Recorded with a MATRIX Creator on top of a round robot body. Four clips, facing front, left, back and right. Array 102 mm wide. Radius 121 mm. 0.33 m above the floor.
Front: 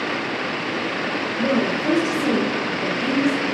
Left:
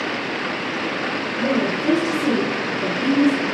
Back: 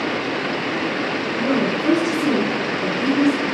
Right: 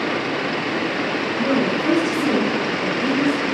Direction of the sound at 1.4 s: 145° right.